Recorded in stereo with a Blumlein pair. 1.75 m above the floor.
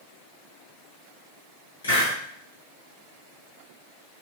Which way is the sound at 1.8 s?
65° left.